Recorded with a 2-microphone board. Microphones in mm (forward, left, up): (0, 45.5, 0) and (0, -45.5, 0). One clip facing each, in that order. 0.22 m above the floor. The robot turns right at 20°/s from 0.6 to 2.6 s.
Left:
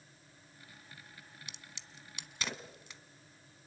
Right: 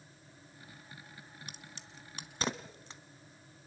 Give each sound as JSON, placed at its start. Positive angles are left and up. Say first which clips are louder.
{"t": 1.5, "sound": "a crack", "louder": "right 3 dB", "side_deg": -45, "distance_m": 1.3}